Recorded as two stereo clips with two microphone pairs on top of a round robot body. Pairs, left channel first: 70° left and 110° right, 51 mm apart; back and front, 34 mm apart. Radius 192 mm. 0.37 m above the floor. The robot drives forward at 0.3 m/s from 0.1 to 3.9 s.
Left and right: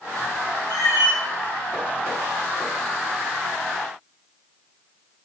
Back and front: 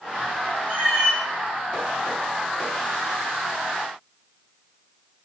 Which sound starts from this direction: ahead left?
A cat meowing, at 0.7 s.